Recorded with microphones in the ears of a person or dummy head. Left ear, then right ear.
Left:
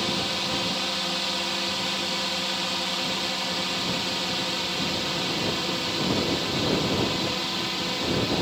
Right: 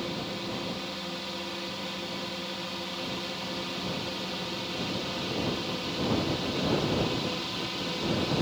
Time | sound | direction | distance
0.0 | a drone | 30° left (ahead or behind) | ?